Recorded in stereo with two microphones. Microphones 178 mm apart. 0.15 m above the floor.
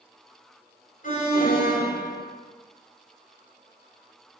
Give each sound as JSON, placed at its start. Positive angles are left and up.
{"t": 1.0, "sound": "an alarm", "side_deg": 50, "distance_m": 2.5}